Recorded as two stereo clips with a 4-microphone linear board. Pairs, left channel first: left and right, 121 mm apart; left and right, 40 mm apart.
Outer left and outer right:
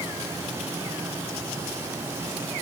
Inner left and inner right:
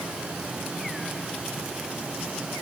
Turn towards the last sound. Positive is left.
No sound to turn to.